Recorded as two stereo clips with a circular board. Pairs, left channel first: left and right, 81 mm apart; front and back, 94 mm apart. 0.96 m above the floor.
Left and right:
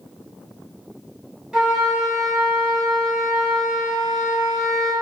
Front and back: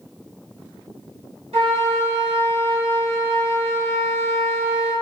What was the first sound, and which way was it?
A flute, 175° right.